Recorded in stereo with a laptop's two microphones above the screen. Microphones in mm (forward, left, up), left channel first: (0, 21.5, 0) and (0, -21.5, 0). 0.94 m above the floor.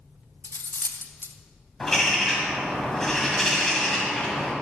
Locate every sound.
0.4 s cutlery clinking: 60° left (ahead or behind), 0.5 m
1.8 s a bird: 10° left (ahead or behind), 1.6 m